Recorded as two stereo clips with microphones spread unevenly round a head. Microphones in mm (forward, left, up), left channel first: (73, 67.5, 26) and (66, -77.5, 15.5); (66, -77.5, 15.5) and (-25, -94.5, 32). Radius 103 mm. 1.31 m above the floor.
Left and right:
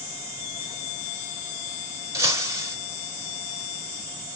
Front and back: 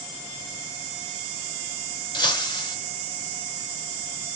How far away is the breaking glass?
About 3.5 m.